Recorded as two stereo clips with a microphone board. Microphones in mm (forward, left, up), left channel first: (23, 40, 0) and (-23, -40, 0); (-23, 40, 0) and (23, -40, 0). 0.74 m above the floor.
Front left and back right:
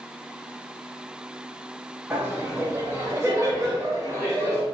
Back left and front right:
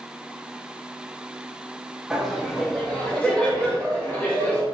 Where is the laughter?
145° right, 0.8 m; by 4.6 s 175° right, 1.8 m.